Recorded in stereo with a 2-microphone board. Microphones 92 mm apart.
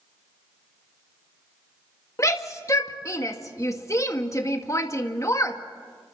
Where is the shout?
35° left (ahead or behind), 1.9 m.